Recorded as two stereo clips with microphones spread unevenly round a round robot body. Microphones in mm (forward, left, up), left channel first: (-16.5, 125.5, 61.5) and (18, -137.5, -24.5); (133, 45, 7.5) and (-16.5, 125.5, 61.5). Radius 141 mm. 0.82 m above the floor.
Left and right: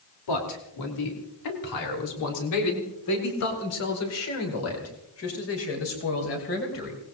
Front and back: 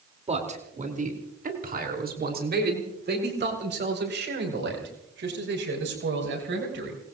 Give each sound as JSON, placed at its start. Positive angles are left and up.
{"t": 0.3, "sound": "a man speaking", "azimuth_deg": 95, "distance_m": 3.0}